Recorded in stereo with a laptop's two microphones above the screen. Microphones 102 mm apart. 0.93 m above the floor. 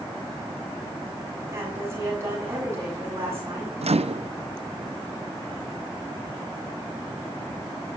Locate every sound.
1.5 s a woman speaking: 25° right (ahead or behind), 7 m
3.8 s a microwave: 80° right, 0.6 m